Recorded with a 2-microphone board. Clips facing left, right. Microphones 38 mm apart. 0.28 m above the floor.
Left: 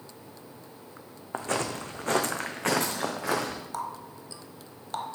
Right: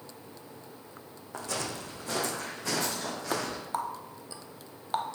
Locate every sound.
1.3 s footsteps: 35° left (ahead or behind), 1.1 m; by 3.6 s 70° left (ahead or behind), 2.0 m
3.7 s a running tap: 20° right (ahead or behind), 0.7 m